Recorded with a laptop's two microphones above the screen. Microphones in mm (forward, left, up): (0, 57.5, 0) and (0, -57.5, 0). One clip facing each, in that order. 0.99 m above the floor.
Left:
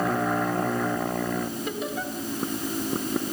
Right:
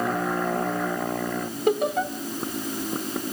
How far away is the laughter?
About 3 m.